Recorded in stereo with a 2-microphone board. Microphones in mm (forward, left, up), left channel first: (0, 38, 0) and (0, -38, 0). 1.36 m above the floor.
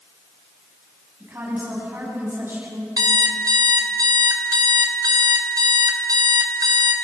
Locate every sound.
1.2 s a woman speaking: 30° right (ahead or behind), 9 m
3.0 s an alarm clock: 65° right (ahead or behind), 3 m